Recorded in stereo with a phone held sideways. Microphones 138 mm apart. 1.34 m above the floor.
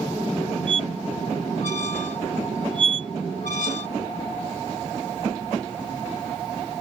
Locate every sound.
0.7 s a squeak: 70° left (ahead or behind)